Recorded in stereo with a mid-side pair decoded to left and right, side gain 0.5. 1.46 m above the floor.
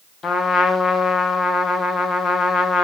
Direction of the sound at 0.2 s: 40° left.